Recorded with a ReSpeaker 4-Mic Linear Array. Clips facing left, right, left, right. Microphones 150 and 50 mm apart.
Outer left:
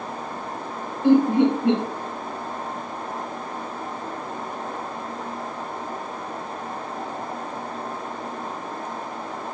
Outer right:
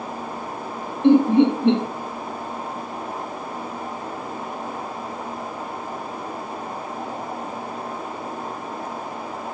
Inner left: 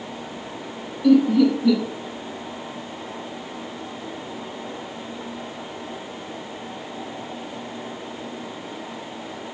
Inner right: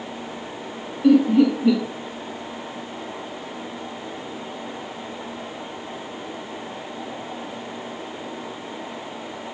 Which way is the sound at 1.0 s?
25° right (ahead or behind).